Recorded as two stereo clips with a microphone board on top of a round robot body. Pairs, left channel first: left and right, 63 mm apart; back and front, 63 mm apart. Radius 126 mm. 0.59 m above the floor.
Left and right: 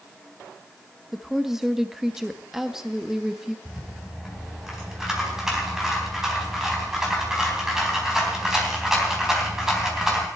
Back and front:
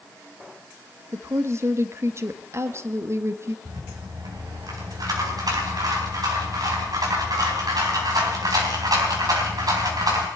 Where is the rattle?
10° right, 4 m.